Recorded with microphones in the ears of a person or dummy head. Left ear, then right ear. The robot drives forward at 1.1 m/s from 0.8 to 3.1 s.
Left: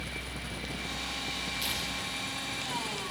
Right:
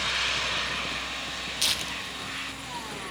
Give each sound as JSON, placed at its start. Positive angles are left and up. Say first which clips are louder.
{"t": 1.6, "sound": "tearing paper", "louder": "right 5 dB", "side_deg": -45, "distance_m": 2.0}